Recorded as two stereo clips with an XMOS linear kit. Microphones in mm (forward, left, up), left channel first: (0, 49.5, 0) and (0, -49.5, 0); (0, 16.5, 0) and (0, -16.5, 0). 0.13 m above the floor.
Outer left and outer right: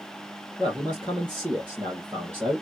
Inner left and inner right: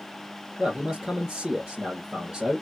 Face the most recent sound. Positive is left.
turn(degrees=-20)  # may be behind; listen again after turning